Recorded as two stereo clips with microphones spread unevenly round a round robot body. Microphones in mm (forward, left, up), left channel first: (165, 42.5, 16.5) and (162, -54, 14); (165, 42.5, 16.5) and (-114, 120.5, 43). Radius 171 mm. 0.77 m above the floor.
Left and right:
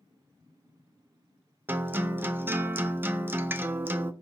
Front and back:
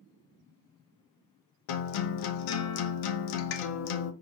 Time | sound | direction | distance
1.7 | a guitar | 20° right | 0.6 m